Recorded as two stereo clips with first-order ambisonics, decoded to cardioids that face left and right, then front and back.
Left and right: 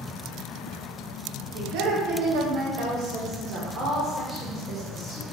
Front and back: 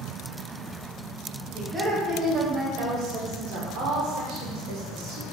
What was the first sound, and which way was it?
A woman speaking, 105° right.